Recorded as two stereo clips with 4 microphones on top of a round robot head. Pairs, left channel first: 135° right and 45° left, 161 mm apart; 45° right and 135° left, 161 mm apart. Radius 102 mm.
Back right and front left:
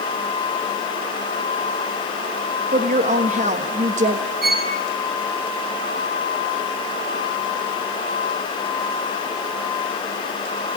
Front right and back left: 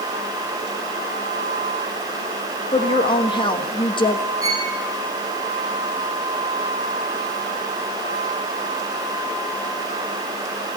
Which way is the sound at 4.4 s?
70° left.